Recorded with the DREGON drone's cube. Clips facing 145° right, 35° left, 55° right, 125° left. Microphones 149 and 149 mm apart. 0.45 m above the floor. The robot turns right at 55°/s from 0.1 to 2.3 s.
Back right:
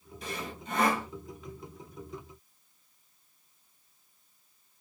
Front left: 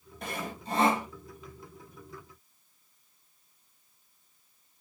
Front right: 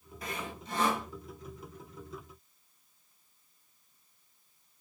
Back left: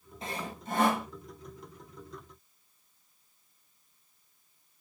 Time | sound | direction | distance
0.2 | sawing | 60° left | 1.8 m